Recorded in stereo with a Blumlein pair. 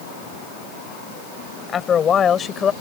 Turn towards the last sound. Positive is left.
turn(degrees=20)